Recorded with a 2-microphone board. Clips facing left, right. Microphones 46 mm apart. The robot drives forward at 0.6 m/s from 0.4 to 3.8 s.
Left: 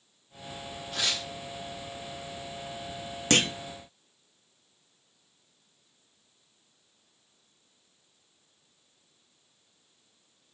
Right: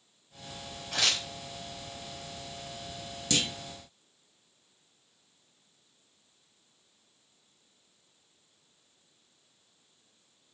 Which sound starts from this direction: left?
A clunk, at 3.3 s.